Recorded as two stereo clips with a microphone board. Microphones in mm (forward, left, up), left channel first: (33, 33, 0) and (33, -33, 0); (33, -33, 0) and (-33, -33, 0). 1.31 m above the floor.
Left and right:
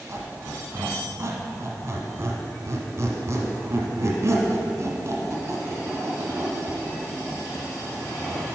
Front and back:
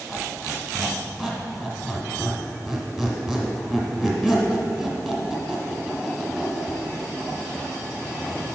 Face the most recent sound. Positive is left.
turn(degrees=-90)